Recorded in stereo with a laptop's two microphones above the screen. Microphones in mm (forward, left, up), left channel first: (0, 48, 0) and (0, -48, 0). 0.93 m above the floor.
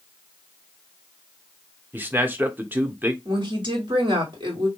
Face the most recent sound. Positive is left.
turn(degrees=-55)  # may be behind; listen again after turning